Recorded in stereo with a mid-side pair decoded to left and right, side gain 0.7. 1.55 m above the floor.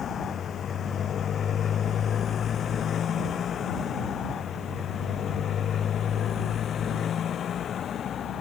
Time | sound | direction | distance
0.0 | a motorcycle | 35° left | ?